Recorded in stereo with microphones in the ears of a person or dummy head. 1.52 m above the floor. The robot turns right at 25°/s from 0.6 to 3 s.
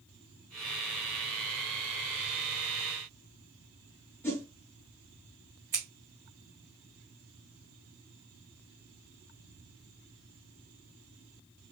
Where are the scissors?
10° right (ahead or behind), 1.4 m.